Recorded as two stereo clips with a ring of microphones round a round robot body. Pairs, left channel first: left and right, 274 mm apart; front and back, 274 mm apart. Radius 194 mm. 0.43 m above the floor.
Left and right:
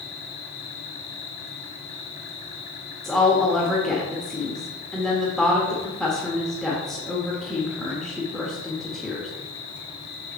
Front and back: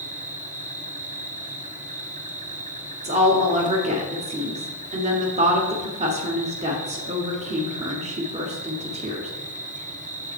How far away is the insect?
About 0.9 m.